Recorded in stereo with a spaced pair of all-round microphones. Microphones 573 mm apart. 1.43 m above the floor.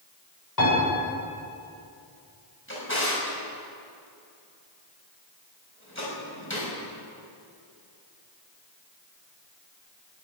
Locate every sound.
0.6 s a piano: 35° left (ahead or behind), 7 m
2.7 s a drawer: 20° left (ahead or behind), 5.5 m